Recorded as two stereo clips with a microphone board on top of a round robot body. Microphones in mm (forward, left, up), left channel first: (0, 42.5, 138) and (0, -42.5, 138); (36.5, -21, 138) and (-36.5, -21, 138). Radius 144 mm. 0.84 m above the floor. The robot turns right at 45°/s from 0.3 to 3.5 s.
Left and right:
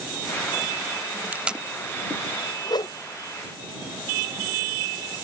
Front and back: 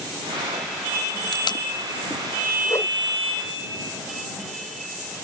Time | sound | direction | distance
1.3 | tape being pulled | 20° right | ?
2.6 | a whoosh | 50° left | ?